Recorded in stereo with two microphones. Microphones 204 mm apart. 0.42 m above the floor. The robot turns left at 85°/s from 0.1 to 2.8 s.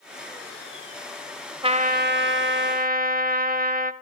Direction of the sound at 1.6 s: 30° right.